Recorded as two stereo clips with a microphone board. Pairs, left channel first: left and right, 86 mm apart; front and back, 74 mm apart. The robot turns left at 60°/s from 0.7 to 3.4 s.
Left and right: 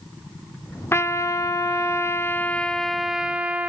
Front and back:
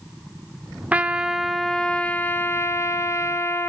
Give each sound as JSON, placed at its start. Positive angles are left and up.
{"t": 0.9, "sound": "a trumpet", "azimuth_deg": 125, "distance_m": 1.2}